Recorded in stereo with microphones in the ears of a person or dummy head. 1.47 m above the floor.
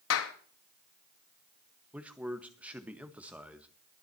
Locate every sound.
0.1 s a clap: 80° left, 1.8 m
1.9 s a man speaking: centre (ahead or behind), 1.5 m